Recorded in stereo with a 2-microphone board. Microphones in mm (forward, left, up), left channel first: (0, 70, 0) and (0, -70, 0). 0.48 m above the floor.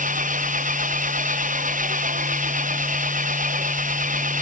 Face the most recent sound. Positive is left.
turn(degrees=-85)